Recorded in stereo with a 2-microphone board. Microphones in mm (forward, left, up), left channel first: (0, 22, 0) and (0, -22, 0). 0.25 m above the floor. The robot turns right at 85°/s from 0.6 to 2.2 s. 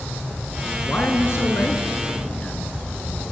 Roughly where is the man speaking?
Ahead left.